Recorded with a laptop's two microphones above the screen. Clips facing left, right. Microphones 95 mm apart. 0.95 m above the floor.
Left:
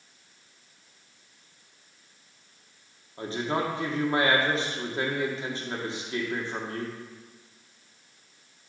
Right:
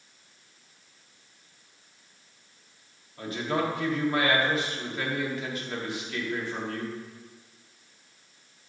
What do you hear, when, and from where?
3.2 s a man speaking: 30° left (ahead or behind), 1.9 m